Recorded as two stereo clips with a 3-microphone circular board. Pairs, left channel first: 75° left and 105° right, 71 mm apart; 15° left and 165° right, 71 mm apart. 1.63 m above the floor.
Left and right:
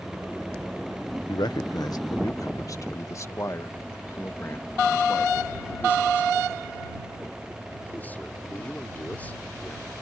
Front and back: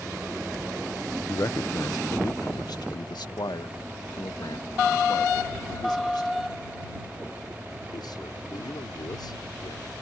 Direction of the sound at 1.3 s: 60° left.